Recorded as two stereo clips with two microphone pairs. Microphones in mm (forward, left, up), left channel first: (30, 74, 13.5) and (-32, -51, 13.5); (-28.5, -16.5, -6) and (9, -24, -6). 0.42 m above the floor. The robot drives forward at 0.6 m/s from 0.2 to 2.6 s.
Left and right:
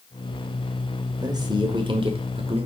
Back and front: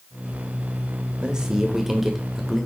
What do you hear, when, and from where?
1.2 s a man speaking: 70° right, 1.7 m; by 2.7 s 110° right, 1.7 m